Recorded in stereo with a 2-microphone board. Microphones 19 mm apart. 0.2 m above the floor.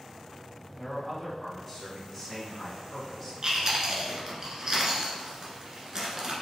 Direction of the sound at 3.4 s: 35° right (ahead or behind).